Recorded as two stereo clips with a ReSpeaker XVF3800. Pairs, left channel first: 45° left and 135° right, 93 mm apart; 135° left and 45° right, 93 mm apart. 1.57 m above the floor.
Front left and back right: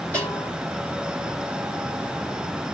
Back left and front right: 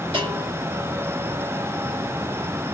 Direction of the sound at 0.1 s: 30° right.